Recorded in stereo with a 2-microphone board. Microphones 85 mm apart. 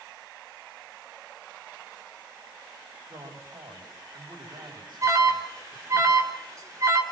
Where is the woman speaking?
65° right (ahead or behind), 6 m.